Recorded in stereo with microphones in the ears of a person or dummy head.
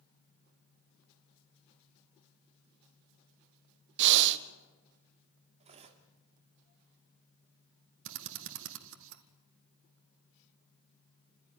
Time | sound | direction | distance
4.0 | breathing | 60° right (ahead or behind) | 1.2 m
5.6 | cutlery clinking | 35° right (ahead or behind) | 1.8 m
8.1 | a drill | 70° right (ahead or behind) | 1.9 m